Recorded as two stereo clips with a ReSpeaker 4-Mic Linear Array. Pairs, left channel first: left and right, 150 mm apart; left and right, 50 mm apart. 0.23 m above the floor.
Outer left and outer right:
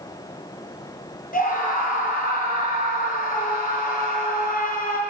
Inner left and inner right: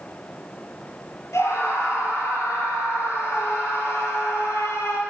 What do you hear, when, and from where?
1.3 s a scream: 65° left (ahead or behind), 6 m